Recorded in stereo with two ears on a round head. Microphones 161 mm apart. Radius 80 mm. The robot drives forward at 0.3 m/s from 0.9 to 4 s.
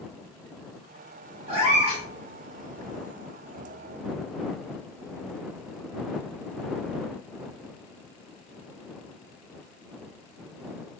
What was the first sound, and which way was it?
A cat meowing, 35° right (ahead or behind).